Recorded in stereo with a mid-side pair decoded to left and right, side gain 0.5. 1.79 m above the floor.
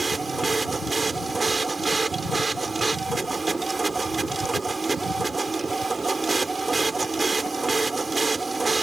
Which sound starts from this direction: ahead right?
A machine running, at 0.0 s.